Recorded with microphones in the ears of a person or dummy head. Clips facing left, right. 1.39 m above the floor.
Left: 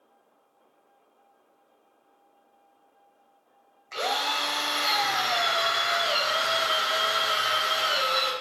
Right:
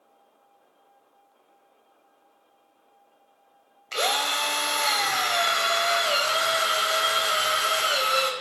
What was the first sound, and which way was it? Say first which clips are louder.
A drill: right 2 dB; 40° right (ahead or behind).